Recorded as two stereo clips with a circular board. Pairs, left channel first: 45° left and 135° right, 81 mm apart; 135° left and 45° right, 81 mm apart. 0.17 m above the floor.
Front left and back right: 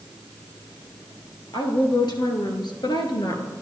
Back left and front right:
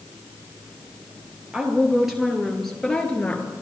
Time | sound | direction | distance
1.5 | a woman speaking | 35° left | 3 m